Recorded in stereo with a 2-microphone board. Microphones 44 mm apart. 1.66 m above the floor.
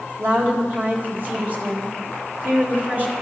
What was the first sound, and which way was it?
A woman speaking, 40° right (ahead or behind).